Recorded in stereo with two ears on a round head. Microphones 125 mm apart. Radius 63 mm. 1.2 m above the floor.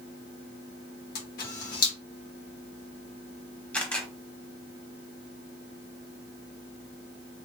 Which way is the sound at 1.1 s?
70° left (ahead or behind).